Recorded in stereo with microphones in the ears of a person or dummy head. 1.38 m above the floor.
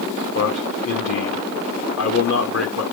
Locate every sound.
0.3 s a man speaking: 65° left (ahead or behind), 2.5 m